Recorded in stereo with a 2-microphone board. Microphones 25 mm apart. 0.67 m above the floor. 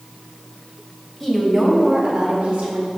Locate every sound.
1.2 s a woman speaking: 15° left (ahead or behind), 1.7 m; by 2.9 s 55° right (ahead or behind), 1.8 m